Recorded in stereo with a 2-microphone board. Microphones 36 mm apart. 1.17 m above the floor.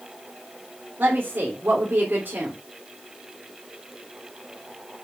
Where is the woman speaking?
70° right (ahead or behind), 3 m.